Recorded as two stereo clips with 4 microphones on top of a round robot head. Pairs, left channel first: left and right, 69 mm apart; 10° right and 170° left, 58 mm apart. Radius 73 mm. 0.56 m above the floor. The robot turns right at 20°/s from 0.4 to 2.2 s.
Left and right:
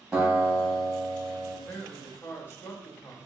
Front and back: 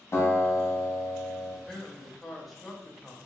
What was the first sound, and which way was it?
A guitar, 5° right.